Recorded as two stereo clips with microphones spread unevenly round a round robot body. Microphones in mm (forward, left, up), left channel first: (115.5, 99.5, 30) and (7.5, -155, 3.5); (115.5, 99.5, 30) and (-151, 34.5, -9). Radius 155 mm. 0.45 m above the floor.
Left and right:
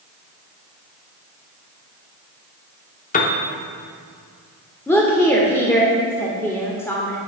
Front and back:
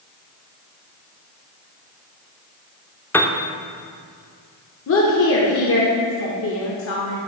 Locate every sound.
3.1 s a piano: 105° left, 0.6 m
4.9 s a woman speaking: 15° right, 1.0 m